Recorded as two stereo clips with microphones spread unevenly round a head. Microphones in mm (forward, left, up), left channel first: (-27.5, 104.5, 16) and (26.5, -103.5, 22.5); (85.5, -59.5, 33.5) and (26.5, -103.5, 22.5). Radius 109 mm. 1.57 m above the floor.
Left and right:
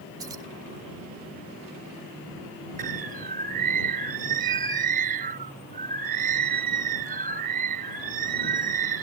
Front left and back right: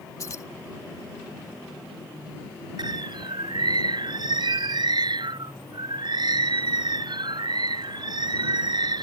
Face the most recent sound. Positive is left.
turn(degrees=-125)